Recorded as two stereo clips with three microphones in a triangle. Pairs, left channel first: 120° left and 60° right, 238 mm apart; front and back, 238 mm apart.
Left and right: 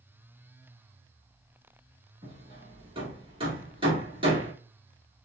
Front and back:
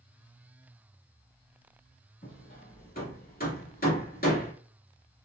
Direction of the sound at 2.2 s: 5° right.